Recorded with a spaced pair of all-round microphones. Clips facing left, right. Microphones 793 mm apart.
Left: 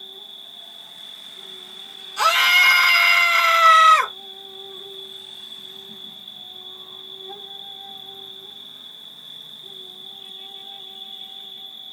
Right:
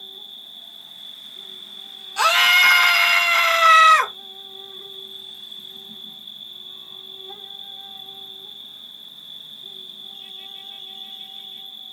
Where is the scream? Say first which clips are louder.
Right 1 dB; 35° right (ahead or behind), 0.7 m.